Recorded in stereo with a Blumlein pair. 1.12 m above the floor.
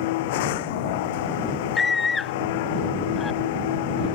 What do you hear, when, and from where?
0.0 s a machine running: 50° left
1.8 s a scream: 15° left